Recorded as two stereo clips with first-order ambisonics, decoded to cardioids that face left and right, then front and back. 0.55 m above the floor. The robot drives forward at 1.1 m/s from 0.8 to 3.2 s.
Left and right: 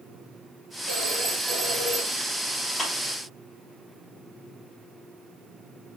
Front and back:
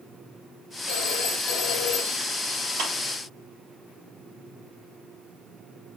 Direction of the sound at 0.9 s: 5° right.